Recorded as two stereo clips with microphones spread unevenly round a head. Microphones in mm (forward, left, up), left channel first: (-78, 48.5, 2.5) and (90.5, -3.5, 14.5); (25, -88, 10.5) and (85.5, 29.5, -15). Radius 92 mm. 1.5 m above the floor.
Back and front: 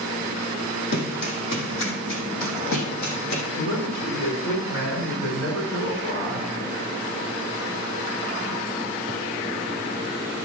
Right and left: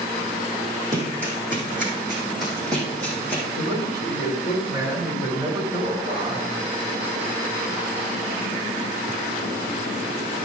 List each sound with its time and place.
0.9 s running footsteps: 140° left, 3.5 m; by 3.4 s 170° left, 3.5 m
3.5 s a man speaking: 160° right, 5 m